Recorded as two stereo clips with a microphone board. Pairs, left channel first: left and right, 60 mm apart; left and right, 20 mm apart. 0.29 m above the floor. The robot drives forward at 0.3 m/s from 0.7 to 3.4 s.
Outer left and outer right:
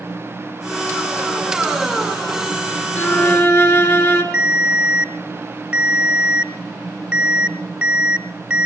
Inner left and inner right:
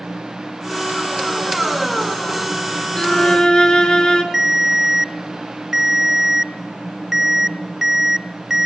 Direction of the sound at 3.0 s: 45° left (ahead or behind).